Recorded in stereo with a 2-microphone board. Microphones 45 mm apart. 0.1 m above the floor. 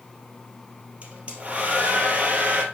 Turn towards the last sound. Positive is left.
turn(degrees=-30)  # may be behind; listen again after turning